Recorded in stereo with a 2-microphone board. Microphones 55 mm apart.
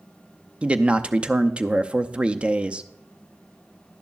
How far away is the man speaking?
About 0.5 m.